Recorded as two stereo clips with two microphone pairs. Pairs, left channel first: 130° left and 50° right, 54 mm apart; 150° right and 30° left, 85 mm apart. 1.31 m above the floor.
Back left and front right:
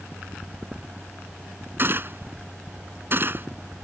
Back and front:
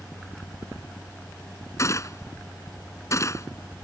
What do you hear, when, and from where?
1.8 s a gunshot: 100° right